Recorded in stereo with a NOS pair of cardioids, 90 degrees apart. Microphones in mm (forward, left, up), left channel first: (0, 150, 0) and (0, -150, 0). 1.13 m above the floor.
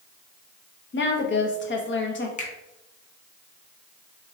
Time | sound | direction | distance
0.9 | a woman speaking | 40° left | 1.3 m
2.4 | a finger snap | 25° left | 1.4 m